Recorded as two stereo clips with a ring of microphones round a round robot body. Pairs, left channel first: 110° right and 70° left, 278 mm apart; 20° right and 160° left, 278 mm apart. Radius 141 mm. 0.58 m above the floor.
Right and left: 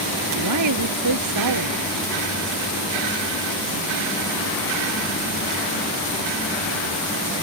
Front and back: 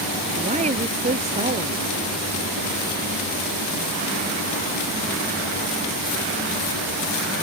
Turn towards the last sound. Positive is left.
turn(degrees=90)